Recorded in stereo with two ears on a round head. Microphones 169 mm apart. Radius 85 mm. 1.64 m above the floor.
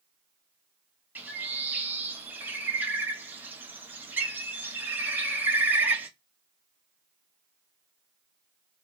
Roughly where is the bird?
Centre.